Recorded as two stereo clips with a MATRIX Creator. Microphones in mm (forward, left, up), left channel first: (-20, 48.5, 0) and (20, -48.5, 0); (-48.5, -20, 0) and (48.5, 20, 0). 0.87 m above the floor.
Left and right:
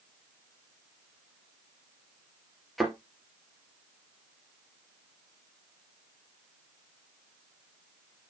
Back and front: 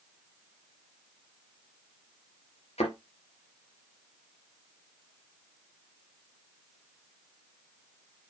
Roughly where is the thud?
Behind.